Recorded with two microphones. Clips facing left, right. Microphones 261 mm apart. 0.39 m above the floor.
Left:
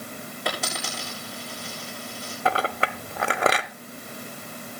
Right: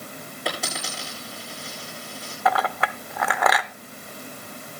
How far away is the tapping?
No tapping in this recording.